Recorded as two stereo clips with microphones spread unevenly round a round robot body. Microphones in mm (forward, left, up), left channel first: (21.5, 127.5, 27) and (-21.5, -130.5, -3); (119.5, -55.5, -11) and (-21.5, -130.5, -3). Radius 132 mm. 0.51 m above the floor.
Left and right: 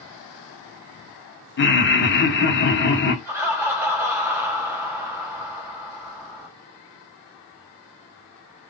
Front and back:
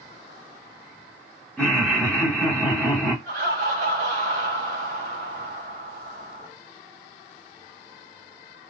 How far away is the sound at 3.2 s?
About 1.8 m.